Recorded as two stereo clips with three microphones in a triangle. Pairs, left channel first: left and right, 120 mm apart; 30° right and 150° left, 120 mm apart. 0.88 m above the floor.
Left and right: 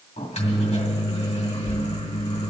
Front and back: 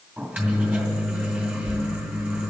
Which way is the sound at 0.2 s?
75° left.